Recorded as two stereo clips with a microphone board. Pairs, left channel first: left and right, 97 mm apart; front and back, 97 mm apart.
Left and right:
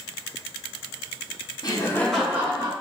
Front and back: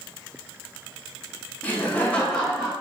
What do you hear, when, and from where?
1.6 s laughter: 65° left, 0.8 m; by 2.7 s 80° right, 0.7 m